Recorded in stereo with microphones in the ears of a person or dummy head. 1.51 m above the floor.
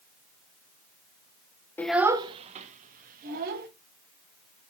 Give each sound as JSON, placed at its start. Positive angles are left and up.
{"t": 1.8, "sound": "a child speaking", "side_deg": 10, "distance_m": 0.7}